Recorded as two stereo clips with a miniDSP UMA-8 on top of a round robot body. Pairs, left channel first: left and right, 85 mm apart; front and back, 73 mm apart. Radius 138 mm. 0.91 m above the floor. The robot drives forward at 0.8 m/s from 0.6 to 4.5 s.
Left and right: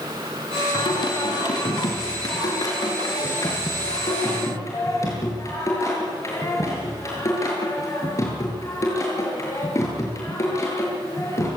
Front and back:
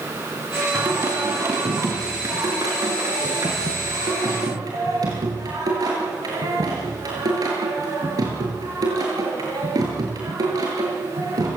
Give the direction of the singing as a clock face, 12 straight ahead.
8 o'clock.